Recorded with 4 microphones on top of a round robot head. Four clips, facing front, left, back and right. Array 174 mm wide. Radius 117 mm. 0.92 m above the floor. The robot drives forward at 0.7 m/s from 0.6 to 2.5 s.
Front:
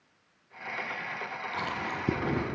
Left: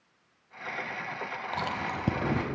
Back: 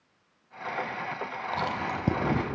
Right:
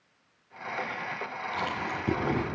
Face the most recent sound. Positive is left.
turn(degrees=155)